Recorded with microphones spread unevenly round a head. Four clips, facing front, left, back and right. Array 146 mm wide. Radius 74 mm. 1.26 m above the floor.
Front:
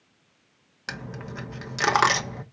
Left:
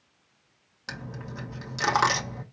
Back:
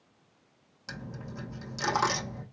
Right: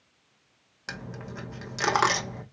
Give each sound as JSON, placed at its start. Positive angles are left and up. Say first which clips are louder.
{"t": 0.9, "sound": "a dropped coin", "louder": "even, front 5 dB", "azimuth_deg": -20, "distance_m": 0.9}